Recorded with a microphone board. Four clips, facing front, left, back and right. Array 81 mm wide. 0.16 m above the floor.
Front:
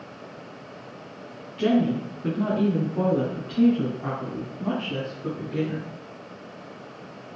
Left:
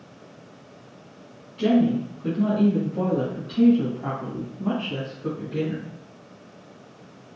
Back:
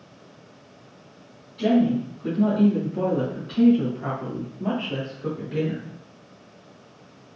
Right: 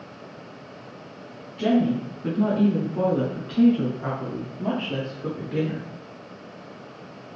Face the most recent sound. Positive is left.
turn(degrees=-110)